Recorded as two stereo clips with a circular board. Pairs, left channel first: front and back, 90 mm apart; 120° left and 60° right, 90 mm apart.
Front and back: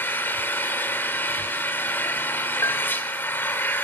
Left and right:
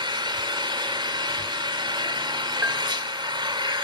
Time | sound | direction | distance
0.0 | an engine running | 60° right | 2.5 m
2.6 | a bell | 15° right | 1.6 m